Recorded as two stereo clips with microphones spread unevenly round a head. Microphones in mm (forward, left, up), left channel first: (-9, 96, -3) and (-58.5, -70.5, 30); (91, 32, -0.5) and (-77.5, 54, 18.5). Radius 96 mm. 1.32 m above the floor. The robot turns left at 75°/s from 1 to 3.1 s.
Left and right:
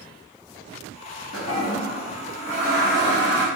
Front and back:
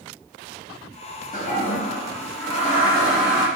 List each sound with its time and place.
1.3 s a toilet flushing: 30° left, 1.1 m; by 3.5 s 100° right, 1.1 m